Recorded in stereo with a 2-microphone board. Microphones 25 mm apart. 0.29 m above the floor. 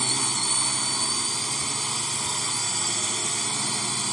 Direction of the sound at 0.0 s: 5° left (ahead or behind).